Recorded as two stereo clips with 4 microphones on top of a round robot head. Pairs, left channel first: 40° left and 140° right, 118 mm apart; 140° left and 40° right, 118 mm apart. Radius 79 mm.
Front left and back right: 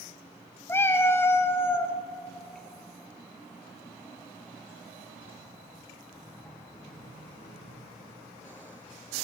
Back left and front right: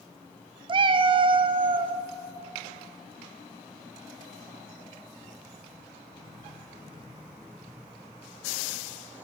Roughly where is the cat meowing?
Ahead right.